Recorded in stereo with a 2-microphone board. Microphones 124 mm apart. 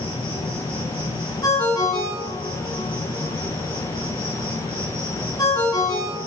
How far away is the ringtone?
About 3 m.